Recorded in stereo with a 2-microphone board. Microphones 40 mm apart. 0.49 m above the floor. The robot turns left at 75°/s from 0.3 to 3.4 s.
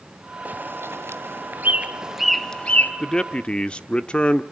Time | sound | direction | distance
0.5 | a bird | 40° right (ahead or behind) | 1.5 m
3.0 | a man speaking | 15° left (ahead or behind) | 1.1 m